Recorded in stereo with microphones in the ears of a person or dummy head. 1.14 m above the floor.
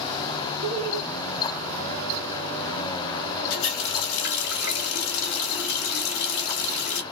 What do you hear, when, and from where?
0.6 s laughter: 35° right (ahead or behind), 1.0 m
3.5 s a running tap: 75° left (ahead or behind), 1.3 m